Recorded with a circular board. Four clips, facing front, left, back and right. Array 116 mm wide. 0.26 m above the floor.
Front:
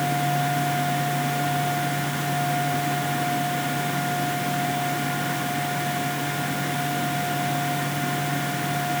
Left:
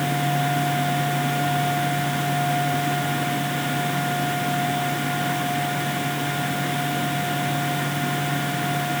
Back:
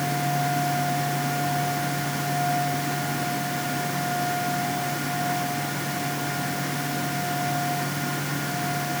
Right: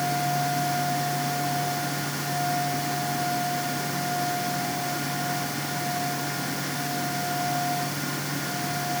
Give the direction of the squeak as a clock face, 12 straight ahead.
I don't hear a squeak.